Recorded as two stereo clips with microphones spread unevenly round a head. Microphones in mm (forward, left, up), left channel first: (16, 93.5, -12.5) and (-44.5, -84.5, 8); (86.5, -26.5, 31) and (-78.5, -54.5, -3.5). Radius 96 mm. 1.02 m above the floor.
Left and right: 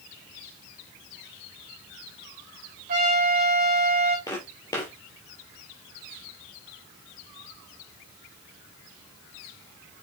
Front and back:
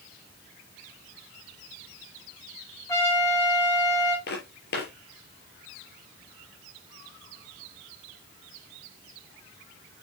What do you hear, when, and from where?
2.9 s a trumpet: 60° right, 5 m
4.3 s footsteps: 5° right, 4.5 m